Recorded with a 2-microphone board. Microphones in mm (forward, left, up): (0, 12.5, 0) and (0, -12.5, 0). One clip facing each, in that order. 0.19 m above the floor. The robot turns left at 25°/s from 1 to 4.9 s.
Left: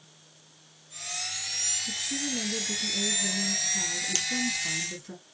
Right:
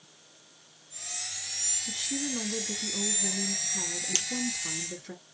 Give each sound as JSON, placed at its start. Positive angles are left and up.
{"t": 1.9, "sound": "a woman speaking", "azimuth_deg": -95, "distance_m": 1.5}
{"t": 4.2, "sound": "a crack", "side_deg": -10, "distance_m": 1.0}